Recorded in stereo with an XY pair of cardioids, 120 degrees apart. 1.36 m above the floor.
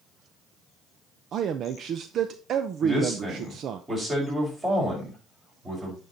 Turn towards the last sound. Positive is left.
turn(degrees=-20)